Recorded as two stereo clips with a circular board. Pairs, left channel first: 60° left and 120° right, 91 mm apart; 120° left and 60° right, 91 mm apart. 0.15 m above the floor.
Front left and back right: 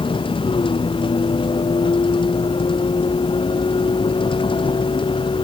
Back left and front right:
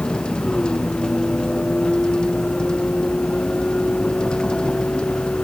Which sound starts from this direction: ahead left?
A vehicle, at 0.0 s.